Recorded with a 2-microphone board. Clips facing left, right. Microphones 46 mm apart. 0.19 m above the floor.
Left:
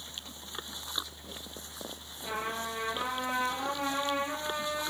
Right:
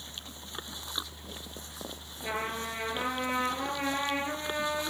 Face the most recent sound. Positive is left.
turn(degrees=-35)  # may be behind; listen again after turning